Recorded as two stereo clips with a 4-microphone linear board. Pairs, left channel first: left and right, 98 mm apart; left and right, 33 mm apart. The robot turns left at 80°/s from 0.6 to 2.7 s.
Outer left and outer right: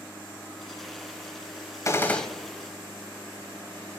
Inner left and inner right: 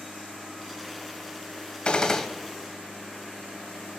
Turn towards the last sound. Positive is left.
turn(degrees=-30)